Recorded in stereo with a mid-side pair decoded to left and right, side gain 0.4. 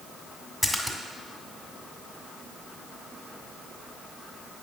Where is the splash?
5° right, 1.8 m.